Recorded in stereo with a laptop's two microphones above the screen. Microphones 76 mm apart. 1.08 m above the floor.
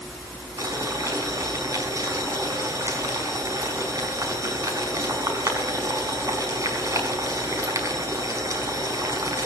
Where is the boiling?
45° right (ahead or behind), 5 m.